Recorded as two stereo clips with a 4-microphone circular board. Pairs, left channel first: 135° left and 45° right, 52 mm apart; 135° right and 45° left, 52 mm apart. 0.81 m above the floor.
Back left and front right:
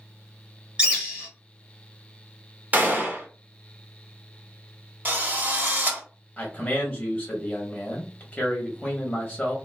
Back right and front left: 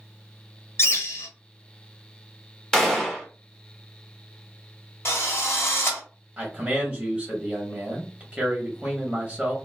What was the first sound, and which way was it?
A bird, 115° right.